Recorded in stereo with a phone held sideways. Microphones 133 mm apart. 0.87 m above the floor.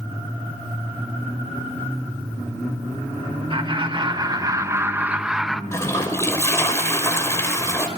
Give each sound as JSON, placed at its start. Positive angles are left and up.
{"t": 3.5, "sound": "laughter", "side_deg": -40, "distance_m": 1.3}
{"t": 5.7, "sound": "a toilet flushing", "side_deg": 20, "distance_m": 4.0}